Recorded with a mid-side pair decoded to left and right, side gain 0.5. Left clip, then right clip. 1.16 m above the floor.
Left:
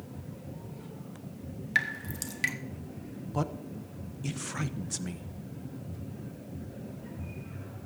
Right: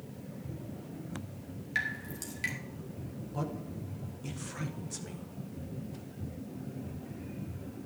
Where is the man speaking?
45° left, 0.8 m.